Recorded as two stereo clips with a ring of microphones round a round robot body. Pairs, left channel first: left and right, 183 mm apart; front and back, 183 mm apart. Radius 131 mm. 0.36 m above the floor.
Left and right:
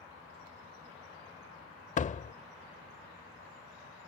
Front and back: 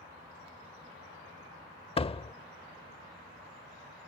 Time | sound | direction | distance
2.0 | a door slam | 50° left | ?